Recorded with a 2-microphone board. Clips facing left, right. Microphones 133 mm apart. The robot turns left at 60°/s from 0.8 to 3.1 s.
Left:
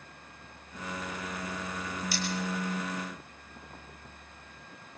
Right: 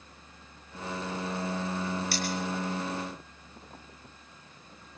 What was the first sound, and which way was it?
Cutlery clinking, 65° right (ahead or behind).